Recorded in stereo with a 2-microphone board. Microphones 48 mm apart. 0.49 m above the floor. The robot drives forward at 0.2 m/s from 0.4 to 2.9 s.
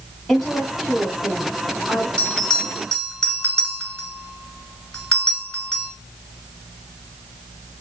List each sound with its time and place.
0.3 s a woman speaking: 5° left (ahead or behind), 1.7 m; by 2.1 s centre (ahead or behind), 2.0 m
2.2 s a bell: 15° left (ahead or behind), 1.6 m